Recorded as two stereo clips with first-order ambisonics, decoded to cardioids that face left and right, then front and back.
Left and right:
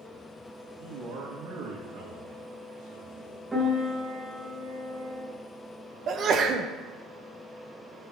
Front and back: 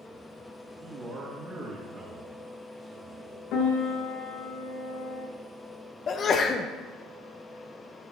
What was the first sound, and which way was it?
A man speaking, 115° right.